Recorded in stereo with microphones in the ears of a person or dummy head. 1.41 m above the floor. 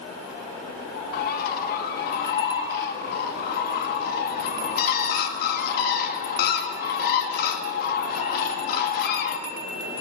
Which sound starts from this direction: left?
A bird, at 1.1 s.